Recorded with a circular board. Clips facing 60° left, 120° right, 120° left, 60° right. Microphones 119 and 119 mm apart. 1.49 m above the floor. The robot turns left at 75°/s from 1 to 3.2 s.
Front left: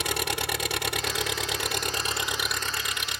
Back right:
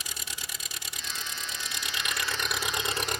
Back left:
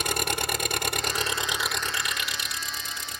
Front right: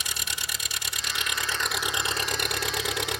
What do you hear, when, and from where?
0.0 s an engine running: 85° left; by 3.2 s 80° right